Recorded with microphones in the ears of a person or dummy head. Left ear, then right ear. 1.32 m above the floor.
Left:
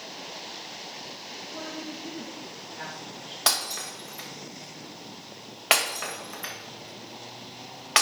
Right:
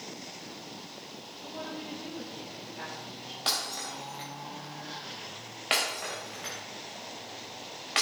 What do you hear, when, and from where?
1.4 s a woman speaking: 5° right (ahead or behind), 1.8 m; by 3.4 s 20° left (ahead or behind), 2.5 m
3.5 s breaking glass: 45° left (ahead or behind), 3 m